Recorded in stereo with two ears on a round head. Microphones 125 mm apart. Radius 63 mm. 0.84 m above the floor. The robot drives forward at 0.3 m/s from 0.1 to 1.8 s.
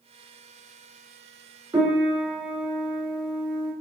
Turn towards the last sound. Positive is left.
turn(degrees=-25)  # may be behind; listen again after turning